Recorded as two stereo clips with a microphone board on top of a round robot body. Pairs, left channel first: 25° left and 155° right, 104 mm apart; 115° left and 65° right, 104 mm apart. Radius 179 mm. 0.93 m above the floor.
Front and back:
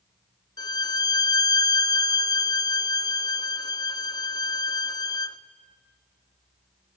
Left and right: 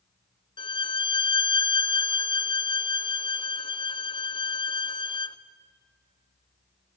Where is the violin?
75° left, 0.7 m.